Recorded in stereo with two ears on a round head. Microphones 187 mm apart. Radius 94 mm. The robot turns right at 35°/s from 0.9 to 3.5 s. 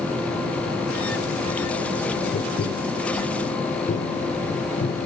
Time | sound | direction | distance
2.3 | tapping | 40° left (ahead or behind) | 0.7 m